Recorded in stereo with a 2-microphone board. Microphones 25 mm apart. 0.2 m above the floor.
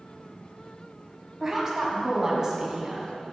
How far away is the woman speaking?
About 1.5 m.